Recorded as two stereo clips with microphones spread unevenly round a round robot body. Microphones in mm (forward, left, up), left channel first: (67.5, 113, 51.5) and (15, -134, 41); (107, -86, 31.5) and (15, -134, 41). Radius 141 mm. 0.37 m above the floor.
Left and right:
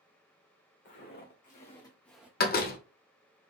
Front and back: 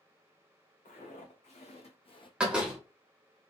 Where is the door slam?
125° left, 0.6 m.